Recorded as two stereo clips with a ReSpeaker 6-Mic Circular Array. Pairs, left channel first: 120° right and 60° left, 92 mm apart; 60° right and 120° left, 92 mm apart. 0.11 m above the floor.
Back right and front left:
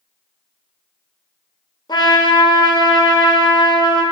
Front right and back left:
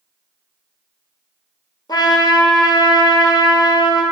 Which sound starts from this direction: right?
A trumpet, at 1.9 s.